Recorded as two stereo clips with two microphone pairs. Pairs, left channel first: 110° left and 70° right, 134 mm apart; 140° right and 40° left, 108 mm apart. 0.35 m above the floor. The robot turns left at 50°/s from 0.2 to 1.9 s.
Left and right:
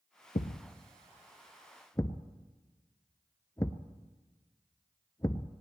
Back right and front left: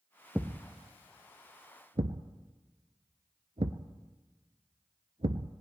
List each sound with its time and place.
0.3 s a thud: 120° left, 0.7 m; by 5.5 s 45° left, 0.7 m